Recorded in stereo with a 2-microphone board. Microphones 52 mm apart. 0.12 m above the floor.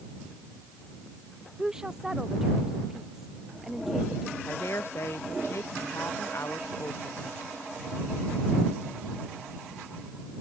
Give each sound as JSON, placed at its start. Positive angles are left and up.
{"t": 1.6, "sound": "a woman speaking", "side_deg": -10}
{"t": 4.5, "sound": "a woman speaking", "side_deg": 55}